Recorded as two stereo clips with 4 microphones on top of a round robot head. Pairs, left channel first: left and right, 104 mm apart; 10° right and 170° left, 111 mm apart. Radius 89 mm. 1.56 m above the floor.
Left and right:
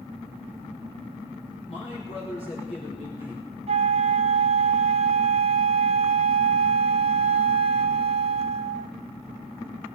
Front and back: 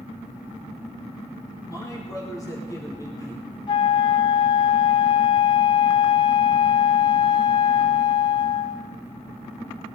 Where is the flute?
60° right, 0.9 m.